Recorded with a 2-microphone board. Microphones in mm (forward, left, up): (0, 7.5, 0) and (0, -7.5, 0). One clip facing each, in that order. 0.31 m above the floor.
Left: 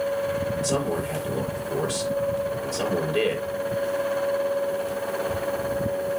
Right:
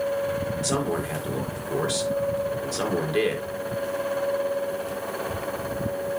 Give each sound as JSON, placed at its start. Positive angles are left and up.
{"t": 0.6, "sound": "a man speaking", "side_deg": -40, "distance_m": 4.0}